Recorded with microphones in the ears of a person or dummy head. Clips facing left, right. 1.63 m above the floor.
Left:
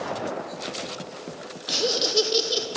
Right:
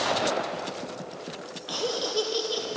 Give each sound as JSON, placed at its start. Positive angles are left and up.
{"t": 1.7, "sound": "laughter", "side_deg": 30, "distance_m": 0.6}